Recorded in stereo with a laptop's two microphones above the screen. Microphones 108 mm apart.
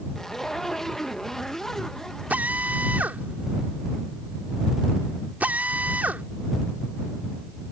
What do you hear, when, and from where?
0.1 s a zipper: 5° left (ahead or behind)
2.3 s a drill: 15° right (ahead or behind)